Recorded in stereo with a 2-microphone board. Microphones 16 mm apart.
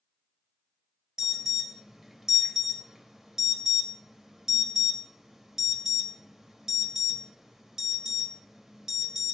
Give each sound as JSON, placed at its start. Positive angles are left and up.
{"t": 1.2, "sound": "an alarm", "side_deg": -40, "distance_m": 1.0}